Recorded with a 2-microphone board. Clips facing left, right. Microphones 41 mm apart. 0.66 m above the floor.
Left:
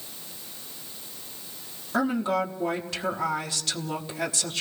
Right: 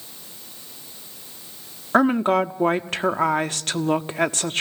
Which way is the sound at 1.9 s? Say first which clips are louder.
Right 7 dB; 50° right (ahead or behind).